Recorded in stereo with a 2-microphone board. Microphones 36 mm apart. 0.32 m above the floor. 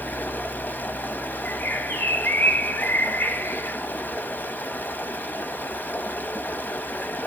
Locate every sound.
0.0 s running water: 60° left (ahead or behind), 0.9 m
1.4 s a bird: 70° left (ahead or behind), 2 m